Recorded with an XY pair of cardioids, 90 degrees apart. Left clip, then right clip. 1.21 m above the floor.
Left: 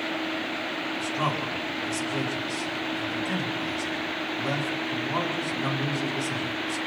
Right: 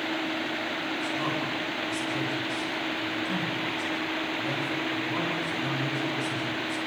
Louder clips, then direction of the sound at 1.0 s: Left 4 dB; 45° left.